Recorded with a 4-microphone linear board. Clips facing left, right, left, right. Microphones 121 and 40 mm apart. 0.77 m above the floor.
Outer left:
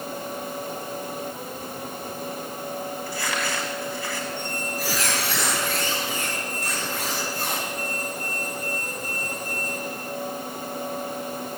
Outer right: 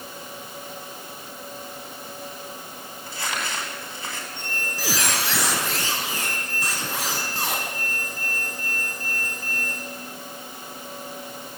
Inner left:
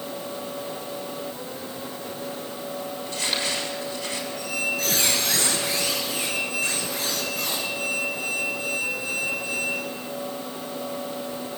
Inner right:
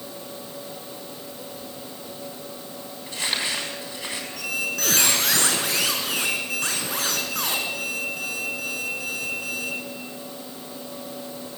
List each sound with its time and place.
3.1 s crumpling: 20° right (ahead or behind), 7 m
4.4 s a squeak: 85° right, 6 m